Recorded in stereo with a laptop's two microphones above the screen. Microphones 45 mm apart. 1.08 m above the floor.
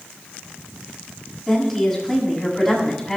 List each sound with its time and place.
1.5 s a woman speaking: centre (ahead or behind), 7.5 m